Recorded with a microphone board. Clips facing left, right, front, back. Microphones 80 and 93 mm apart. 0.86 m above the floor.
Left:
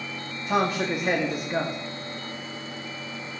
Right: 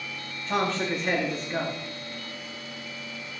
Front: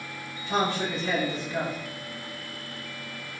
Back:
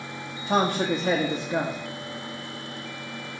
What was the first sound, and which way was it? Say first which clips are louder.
A man speaking: left 2 dB, back 4 dB; 165° left.